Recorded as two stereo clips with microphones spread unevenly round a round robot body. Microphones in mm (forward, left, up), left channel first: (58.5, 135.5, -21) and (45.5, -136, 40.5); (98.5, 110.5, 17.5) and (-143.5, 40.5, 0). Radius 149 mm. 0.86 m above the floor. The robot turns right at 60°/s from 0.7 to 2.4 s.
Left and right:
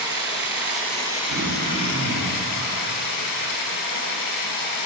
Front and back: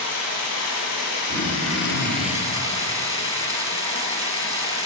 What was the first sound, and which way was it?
Running water, 20° right.